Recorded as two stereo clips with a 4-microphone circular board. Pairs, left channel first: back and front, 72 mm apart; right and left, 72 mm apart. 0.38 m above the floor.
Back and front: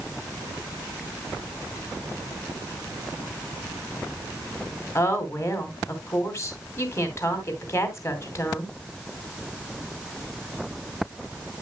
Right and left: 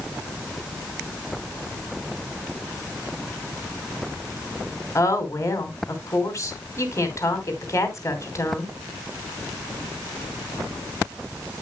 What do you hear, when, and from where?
5.0 s a woman speaking: 135° right, 2.5 m